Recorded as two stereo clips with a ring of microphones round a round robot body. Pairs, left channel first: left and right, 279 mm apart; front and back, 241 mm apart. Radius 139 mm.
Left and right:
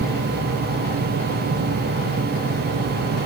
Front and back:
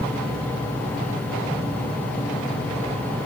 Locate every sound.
Only background noise.